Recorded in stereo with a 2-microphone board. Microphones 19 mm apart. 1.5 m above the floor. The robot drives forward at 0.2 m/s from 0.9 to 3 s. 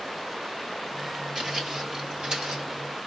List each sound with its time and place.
1.4 s footsteps: 25° right (ahead or behind), 1.9 m; by 2.6 s 40° right (ahead or behind), 1.9 m